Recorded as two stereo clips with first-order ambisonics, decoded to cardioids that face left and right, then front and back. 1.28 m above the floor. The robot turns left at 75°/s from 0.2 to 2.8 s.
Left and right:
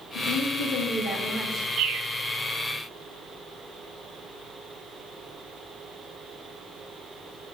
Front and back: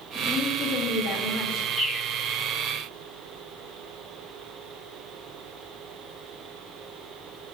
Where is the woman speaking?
85° left, 2 m; by 1.7 s 25° right, 2 m.